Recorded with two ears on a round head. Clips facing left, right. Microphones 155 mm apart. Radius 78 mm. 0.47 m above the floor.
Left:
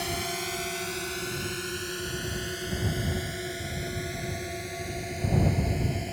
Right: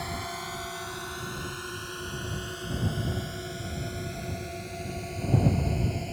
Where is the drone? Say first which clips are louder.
Left 3 dB; 35° left (ahead or behind); by 6.2 s 10° left (ahead or behind).